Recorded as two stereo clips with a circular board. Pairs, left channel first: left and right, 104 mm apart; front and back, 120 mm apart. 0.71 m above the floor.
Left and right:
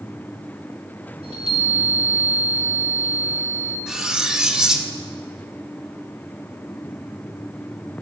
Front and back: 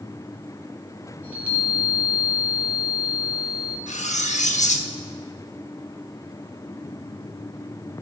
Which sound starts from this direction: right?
A chime, at 1.2 s.